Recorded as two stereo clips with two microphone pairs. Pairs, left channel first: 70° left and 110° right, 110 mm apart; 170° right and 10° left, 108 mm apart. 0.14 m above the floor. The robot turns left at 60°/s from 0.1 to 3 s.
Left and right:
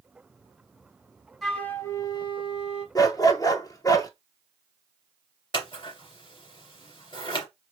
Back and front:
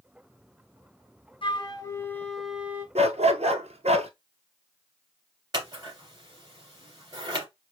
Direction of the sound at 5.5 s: 50° left.